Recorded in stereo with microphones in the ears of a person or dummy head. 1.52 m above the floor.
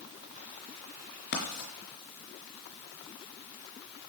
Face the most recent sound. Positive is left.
turn(degrees=55)  # may be behind; listen again after turning